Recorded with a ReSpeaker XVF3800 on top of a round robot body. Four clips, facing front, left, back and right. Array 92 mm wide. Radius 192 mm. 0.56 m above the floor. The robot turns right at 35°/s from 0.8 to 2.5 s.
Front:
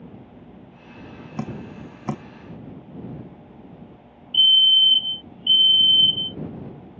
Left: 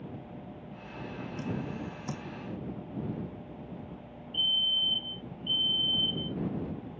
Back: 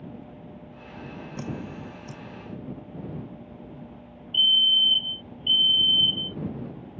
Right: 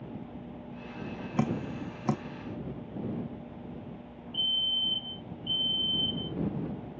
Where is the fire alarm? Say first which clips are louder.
Left 1 dB, front 5 dB; 5° left.